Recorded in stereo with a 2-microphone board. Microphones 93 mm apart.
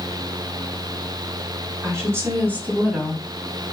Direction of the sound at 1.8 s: 30° right (ahead or behind).